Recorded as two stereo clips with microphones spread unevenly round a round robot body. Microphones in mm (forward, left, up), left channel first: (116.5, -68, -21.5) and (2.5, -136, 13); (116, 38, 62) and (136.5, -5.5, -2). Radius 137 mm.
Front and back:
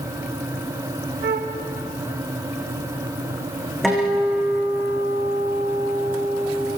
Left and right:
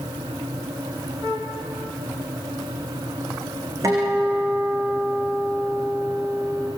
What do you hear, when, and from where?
1.2 s a flute: 155° right, 1.9 m
3.8 s a guitar: 60° right, 9.5 m